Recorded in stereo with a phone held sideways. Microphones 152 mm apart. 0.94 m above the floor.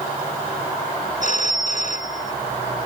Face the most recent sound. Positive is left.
turn(degrees=55)  # may be behind; listen again after turning